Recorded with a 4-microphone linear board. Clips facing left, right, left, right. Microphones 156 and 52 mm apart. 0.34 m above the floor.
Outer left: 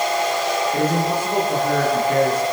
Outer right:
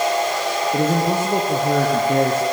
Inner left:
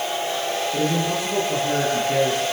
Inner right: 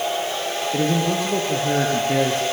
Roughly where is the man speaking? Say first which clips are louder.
Outer right 1 dB, inner right 4 dB; right.